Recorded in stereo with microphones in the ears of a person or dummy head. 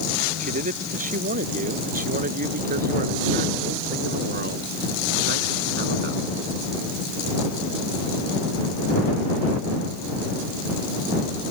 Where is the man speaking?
40° right (ahead or behind); by 6.2 s 55° right (ahead or behind).